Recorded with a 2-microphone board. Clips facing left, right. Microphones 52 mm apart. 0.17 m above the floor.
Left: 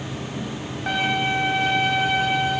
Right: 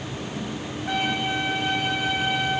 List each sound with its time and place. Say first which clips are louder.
0.9 s a violin: left 3 dB; 75° left (ahead or behind), 5 m